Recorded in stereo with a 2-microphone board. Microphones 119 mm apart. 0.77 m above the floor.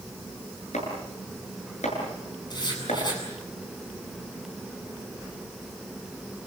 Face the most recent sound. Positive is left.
turn(degrees=40)  # may be behind; listen again after turning